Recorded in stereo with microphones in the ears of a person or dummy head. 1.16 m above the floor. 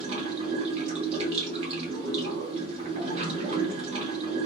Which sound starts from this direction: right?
Running water, at 0.0 s.